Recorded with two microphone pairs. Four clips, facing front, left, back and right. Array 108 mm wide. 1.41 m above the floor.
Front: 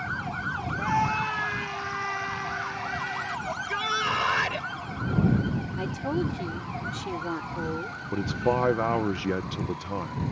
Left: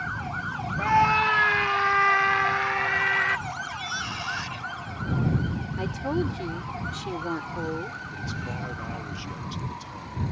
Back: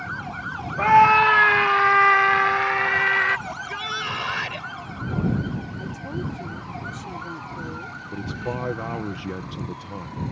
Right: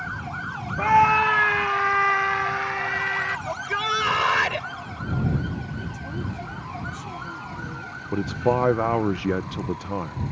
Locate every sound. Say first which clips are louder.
0.8 s a scream: right 4 dB, back 13 dB; 160° right; by 3.4 s 175° left
3.5 s a shout: right 7 dB, front 1 dB; 80° right
5.8 s a woman speaking: left 6 dB, front 3 dB; 50° left
8.1 s a man speaking: right 12 dB, front 5 dB; 65° right